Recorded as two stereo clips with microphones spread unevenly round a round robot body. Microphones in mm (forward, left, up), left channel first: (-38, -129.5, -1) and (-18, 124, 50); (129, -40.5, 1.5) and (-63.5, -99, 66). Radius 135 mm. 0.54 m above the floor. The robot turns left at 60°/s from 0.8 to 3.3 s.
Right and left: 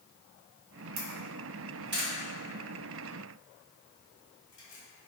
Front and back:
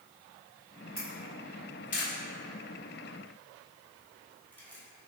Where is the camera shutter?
90° left, 1.1 m; by 5.1 s 50° right, 1.1 m.